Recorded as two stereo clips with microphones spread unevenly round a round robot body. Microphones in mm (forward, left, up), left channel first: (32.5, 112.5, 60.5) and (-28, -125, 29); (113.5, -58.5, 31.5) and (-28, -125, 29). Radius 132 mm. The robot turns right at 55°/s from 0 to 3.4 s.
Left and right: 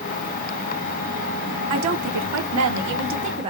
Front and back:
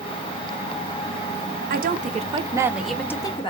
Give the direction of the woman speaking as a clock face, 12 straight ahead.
4 o'clock.